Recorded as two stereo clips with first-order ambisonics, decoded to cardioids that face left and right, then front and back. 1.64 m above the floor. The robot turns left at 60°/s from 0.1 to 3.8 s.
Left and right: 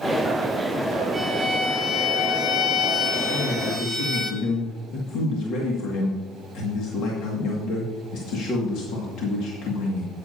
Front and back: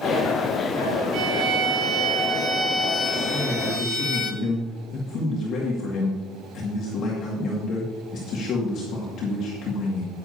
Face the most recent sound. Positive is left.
turn(degrees=50)